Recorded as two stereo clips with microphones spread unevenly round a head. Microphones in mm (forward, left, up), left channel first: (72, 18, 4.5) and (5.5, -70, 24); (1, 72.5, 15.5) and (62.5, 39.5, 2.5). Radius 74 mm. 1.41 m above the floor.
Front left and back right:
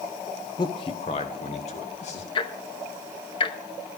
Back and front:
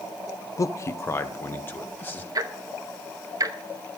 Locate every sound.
0.6 s a man speaking: 105° left, 0.7 m; by 2.2 s 85° left, 2.5 m
2.4 s ticking: 10° left, 1.0 m